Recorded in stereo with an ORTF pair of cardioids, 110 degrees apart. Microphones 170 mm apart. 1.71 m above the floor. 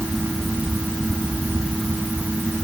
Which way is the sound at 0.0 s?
5° right.